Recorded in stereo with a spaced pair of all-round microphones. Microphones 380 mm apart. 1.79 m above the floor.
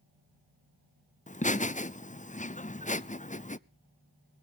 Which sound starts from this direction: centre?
Laughter, at 1.3 s.